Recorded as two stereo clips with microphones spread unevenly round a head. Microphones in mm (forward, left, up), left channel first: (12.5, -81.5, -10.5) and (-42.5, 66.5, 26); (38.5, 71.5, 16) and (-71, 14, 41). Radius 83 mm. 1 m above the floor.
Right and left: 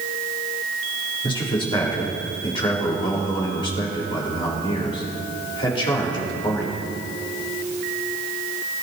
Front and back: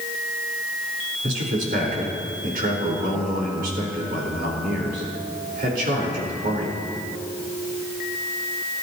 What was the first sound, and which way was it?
A man speaking, 130° right.